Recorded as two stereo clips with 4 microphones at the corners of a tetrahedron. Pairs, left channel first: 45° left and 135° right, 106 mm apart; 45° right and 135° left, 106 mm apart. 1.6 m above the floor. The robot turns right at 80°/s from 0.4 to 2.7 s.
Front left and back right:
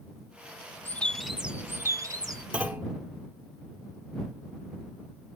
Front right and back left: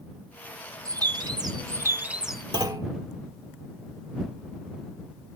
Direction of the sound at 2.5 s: 155° left.